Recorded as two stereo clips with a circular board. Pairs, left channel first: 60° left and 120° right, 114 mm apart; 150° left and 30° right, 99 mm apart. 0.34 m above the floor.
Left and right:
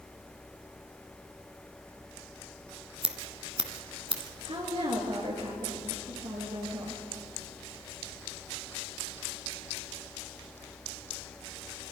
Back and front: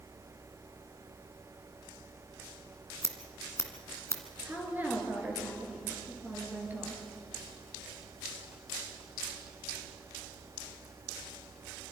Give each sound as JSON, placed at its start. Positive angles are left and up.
{"t": 3.0, "sound": "scissors", "azimuth_deg": -155, "distance_m": 1.6}
{"t": 4.5, "sound": "a woman speaking", "azimuth_deg": -100, "distance_m": 5.0}